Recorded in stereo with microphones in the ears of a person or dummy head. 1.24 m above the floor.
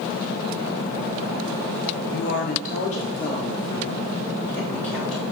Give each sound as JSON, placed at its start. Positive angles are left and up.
{"t": 2.1, "sound": "a woman speaking", "side_deg": 50, "distance_m": 0.8}